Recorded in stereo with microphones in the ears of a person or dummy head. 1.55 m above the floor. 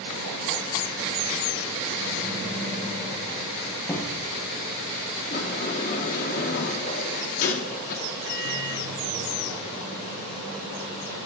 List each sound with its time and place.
3.9 s a cupboard door: 10° left (ahead or behind), 3 m
5.3 s a sliding door: 45° left (ahead or behind), 2 m
8.3 s a microwave: 50° right (ahead or behind), 8 m